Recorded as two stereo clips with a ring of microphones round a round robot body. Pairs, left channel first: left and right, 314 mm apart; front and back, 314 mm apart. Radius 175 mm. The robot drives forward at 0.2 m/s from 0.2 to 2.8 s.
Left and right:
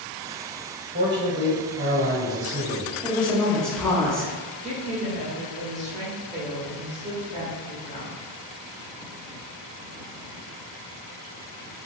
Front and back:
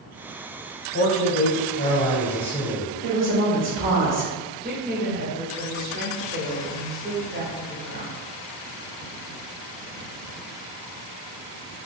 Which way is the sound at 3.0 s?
175° left.